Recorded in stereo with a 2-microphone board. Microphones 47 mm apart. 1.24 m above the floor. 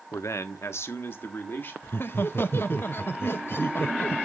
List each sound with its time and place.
0.1 s a man speaking: 85° left, 0.7 m; by 1.7 s 50° left (ahead or behind), 2 m
1.8 s laughter: 50° left (ahead or behind), 0.6 m